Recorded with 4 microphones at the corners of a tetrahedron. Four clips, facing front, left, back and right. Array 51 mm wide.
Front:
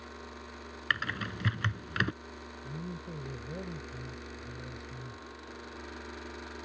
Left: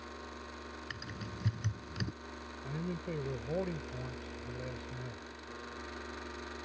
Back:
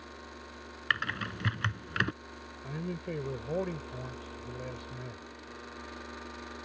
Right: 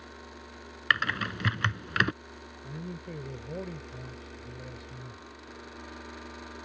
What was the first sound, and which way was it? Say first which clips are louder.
Typing on a keyboard: right 22 dB, back 1 dB; 95° right.